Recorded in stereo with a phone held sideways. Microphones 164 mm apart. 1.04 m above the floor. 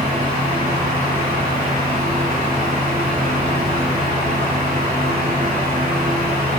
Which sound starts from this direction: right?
A fan, at 0.0 s.